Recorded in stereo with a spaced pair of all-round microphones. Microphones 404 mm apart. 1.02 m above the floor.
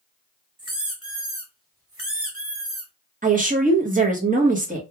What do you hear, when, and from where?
0.6 s a squeak: 35° right (ahead or behind), 0.9 m
3.2 s a woman speaking: 20° right (ahead or behind), 0.9 m